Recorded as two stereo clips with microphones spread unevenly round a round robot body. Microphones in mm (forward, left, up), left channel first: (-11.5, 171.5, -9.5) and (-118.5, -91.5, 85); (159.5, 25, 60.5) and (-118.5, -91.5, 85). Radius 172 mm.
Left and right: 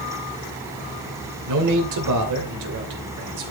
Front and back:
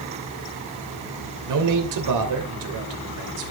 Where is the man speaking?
140° right, 3 m.